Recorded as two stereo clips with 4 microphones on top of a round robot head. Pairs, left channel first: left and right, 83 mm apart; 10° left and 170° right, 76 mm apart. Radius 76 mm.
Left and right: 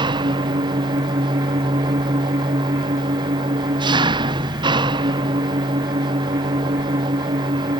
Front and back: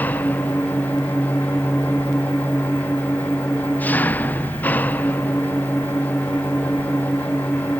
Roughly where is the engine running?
Ahead right.